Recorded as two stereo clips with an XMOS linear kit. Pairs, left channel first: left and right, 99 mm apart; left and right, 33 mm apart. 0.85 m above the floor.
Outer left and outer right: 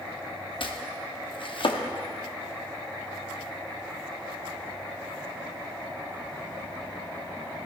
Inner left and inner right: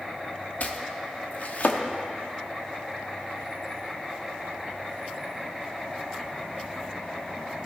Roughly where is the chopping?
Left.